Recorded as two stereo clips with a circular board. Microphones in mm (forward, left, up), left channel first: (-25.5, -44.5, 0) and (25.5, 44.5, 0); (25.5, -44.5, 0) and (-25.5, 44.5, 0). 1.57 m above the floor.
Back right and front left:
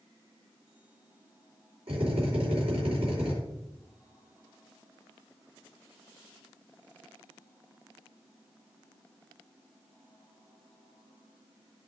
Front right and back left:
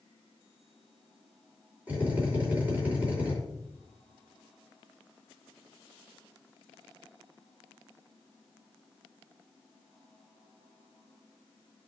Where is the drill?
45° left, 5 m.